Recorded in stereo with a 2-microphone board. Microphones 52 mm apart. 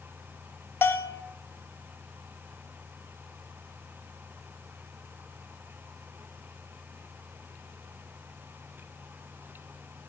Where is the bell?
45° left (ahead or behind), 0.7 m.